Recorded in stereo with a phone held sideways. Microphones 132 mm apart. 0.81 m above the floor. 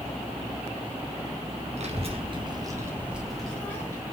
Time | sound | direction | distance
1.8 | a child speaking | 55° right (ahead or behind) | 1.0 m